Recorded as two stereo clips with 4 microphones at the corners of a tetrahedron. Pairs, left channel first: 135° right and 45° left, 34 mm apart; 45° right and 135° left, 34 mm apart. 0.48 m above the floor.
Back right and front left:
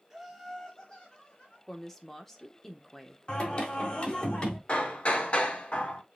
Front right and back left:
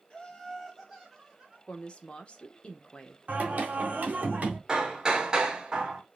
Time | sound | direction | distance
0.1 | laughter | 25° right | 1.3 m
1.7 | a woman speaking | 65° right | 0.9 m
3.3 | singing | 170° left | 1.5 m
4.7 | hammering | 170° right | 0.9 m